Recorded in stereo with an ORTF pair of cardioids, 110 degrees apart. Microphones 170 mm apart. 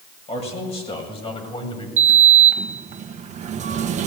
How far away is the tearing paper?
I don't hear tearing paper.